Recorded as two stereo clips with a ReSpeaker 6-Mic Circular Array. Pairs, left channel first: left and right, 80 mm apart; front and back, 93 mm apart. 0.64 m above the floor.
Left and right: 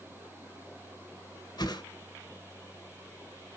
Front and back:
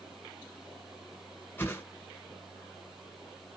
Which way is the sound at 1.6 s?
70° left.